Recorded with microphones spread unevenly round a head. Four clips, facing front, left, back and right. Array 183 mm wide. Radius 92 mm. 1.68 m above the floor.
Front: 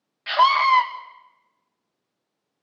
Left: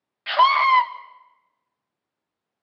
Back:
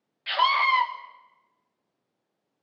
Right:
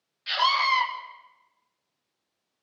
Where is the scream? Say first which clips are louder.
Left 8 dB, front 6 dB; 50° left, 1.9 m.